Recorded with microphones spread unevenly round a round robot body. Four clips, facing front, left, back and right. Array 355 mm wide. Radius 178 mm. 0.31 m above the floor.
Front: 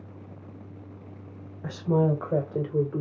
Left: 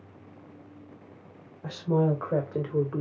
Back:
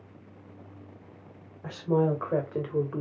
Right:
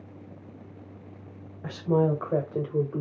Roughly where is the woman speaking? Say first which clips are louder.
Right 2 dB, front 1 dB; ahead right.